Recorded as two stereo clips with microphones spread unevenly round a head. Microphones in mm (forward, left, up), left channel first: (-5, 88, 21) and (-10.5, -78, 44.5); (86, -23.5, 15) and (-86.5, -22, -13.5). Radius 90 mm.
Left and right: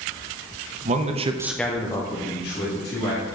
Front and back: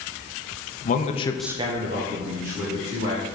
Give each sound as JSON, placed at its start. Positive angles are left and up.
{"t": 0.8, "sound": "a man speaking", "azimuth_deg": -45, "distance_m": 0.9}